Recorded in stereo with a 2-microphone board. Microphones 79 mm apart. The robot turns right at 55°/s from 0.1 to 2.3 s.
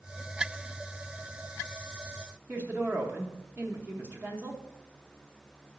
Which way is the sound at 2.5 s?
25° right (ahead or behind).